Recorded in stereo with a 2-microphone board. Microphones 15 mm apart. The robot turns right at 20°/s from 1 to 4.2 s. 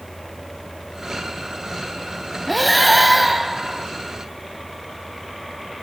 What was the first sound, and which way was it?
Breathing, 10° left (ahead or behind).